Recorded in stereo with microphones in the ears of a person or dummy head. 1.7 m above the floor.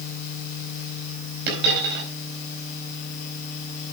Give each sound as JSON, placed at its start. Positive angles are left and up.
{"t": 1.5, "sound": "a dropped coin", "side_deg": -55, "distance_m": 4.0}